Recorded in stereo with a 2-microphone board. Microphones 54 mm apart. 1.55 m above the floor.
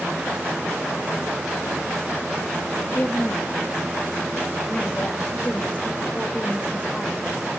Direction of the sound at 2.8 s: 30° left (ahead or behind).